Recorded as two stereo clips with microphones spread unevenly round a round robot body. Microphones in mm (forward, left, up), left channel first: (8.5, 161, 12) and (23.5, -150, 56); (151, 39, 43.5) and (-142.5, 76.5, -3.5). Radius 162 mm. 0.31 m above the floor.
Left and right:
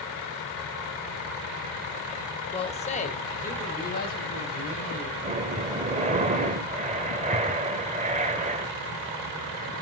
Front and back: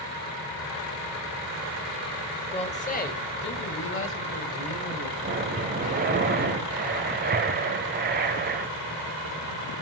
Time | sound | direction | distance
2.5 | a man speaking | 65° left | 1.1 m
5.2 | breathing | 155° right | 0.8 m